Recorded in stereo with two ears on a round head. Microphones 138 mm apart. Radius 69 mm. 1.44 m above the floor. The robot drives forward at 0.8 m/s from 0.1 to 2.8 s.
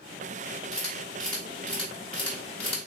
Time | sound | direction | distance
0.7 | a camera shutter | 5° left (ahead or behind) | 4 m